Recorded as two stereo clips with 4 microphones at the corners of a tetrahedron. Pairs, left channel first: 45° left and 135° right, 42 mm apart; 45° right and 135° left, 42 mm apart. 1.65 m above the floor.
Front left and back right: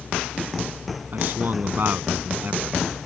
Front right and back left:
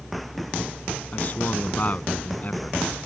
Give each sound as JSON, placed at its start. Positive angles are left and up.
{"t": 1.1, "sound": "a man speaking", "azimuth_deg": -95}